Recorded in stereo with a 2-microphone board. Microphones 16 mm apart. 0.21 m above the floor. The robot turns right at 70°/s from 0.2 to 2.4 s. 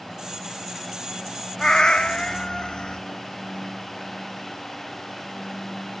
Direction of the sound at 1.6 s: 55° left.